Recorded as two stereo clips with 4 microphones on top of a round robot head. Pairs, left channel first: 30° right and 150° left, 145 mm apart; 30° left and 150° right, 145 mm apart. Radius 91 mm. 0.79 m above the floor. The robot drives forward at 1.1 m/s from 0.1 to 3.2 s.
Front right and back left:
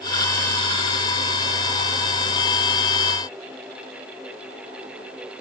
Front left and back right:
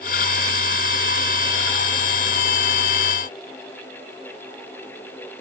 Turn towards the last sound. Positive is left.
No sound to turn to.